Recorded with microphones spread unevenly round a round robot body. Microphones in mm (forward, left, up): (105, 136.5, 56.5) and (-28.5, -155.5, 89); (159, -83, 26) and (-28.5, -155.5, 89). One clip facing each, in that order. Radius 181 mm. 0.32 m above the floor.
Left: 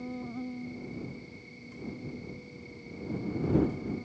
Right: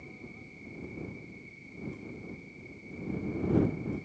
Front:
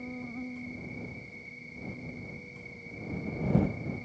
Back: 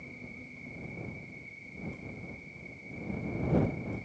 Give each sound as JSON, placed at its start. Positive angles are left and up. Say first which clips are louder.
{"t": 0.0, "sound": "an insect", "louder": "left 11 dB, front 9 dB", "azimuth_deg": 50}